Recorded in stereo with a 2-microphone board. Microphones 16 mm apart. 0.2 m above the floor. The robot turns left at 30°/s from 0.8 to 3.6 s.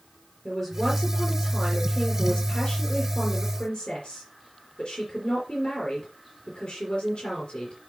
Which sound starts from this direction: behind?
A man speaking, at 0.5 s.